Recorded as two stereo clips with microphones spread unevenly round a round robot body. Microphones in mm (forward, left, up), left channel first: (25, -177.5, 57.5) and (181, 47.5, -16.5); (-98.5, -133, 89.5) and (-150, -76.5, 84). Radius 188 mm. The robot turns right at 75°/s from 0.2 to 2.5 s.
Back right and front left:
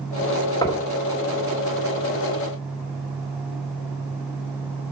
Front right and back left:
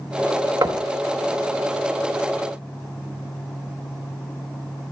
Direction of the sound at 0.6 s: 145° left.